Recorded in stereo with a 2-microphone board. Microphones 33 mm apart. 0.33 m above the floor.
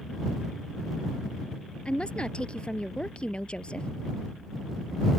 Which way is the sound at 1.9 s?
30° left (ahead or behind).